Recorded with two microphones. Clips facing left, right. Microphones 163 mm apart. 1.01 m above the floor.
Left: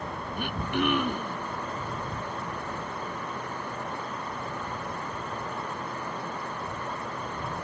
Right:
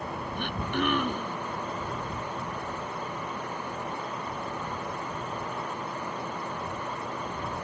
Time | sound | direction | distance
0.4 | throat clearing | 5° left (ahead or behind) | ?